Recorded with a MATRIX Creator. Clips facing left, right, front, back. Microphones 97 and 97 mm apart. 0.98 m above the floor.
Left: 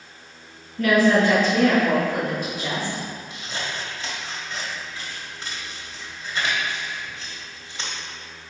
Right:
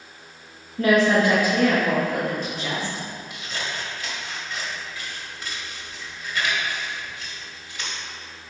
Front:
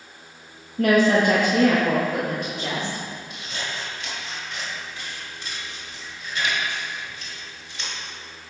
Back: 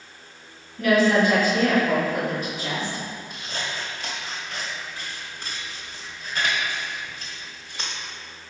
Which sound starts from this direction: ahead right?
A woman speaking, at 0.8 s.